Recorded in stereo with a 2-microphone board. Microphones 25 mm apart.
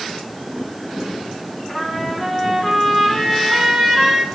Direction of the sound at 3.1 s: 40° right (ahead or behind).